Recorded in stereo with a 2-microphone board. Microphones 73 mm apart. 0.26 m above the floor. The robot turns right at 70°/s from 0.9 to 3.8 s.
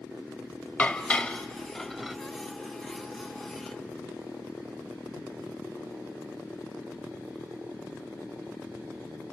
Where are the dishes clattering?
20° left (ahead or behind), 0.7 m; by 2.2 s 5° right (ahead or behind), 0.7 m.